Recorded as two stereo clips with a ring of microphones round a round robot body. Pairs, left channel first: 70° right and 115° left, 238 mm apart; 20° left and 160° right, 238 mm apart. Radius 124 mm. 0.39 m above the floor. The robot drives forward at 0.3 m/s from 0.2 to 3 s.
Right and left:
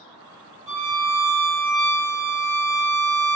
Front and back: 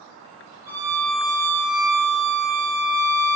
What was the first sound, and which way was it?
A violin, 125° left.